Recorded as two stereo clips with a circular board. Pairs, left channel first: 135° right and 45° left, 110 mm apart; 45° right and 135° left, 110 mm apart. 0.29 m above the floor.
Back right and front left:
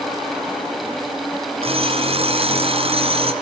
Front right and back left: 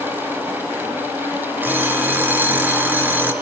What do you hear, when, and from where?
1.6 s an alarm clock: 65° left, 2.5 m